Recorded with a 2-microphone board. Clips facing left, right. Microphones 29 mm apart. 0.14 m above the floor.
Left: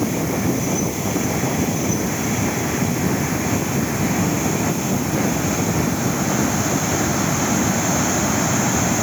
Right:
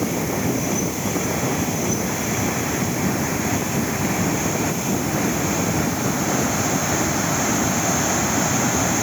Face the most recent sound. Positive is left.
No sound to turn to.